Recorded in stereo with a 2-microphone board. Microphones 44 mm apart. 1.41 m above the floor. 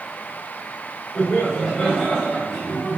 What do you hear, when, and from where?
1.1 s laughter: 15° left (ahead or behind), 4 m; by 3.0 s centre (ahead or behind), 4.5 m